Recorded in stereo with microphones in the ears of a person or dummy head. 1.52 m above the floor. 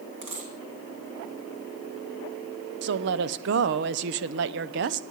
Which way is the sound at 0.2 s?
40° right (ahead or behind).